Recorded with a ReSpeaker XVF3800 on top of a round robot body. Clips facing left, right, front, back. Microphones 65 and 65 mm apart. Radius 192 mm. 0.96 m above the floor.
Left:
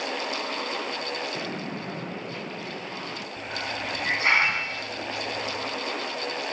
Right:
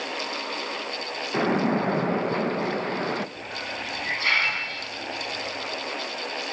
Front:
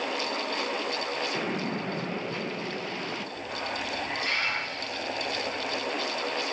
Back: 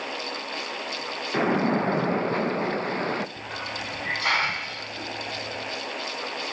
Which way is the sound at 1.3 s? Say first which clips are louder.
Right 10 dB, back 8 dB; 135° right.